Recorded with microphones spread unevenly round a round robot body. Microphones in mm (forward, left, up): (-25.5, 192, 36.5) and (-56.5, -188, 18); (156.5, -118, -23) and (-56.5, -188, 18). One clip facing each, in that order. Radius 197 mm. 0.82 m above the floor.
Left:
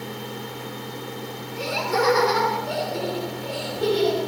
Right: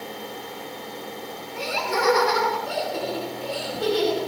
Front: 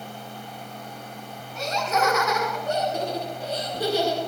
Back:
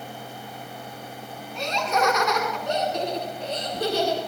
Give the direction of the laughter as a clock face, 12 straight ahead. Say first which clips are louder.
Left 3 dB, back 1 dB; 2 o'clock.